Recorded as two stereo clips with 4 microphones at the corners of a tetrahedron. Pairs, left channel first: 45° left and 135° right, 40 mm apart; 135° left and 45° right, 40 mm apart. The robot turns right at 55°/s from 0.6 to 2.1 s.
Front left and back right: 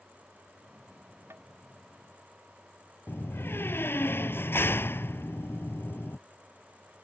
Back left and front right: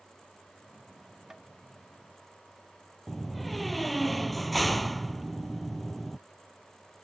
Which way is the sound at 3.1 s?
45° left.